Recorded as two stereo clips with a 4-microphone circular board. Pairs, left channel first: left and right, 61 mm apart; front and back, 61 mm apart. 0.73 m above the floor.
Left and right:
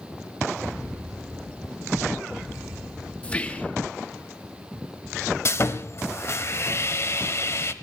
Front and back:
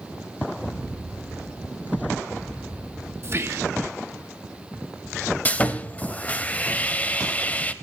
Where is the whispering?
150° left, 1.2 m.